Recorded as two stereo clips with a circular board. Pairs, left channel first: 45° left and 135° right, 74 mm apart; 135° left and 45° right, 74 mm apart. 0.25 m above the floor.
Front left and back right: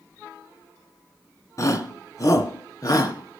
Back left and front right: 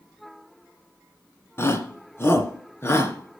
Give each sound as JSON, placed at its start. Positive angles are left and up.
{"t": 1.6, "sound": "a shout", "azimuth_deg": 85, "distance_m": 2.5}